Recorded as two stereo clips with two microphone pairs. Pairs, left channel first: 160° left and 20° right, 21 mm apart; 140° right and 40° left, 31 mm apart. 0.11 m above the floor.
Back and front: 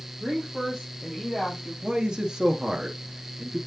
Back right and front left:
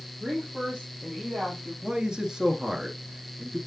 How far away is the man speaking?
About 1.3 m.